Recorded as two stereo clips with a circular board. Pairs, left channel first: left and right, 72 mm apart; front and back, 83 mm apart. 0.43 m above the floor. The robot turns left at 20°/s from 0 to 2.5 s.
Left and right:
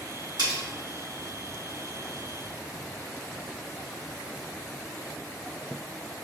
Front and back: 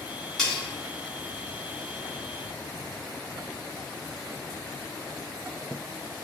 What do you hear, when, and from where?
0.4 s cutlery clinking: 85° right, 1.2 m